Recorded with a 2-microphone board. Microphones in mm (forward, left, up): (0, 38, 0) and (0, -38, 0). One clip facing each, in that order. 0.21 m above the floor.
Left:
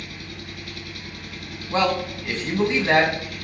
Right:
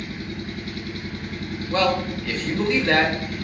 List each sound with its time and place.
0.0 s an engine running: 35° right (ahead or behind), 1.0 m
1.7 s a man speaking: 25° left (ahead or behind), 1.9 m